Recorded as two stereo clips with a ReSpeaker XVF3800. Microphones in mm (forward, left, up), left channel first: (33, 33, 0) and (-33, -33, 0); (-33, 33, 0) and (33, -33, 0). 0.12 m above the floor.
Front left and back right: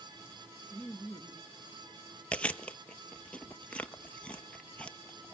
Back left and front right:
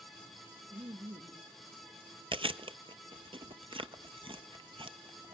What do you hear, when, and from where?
0.7 s laughter: 60° right, 2 m
2.3 s chewing: 30° right, 0.8 m